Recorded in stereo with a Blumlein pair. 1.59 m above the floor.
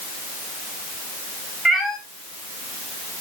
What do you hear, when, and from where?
1.6 s a cat meowing: 10° right, 2.5 m